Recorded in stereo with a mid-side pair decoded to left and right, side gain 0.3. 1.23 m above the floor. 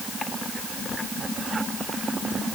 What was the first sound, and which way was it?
Only background noise.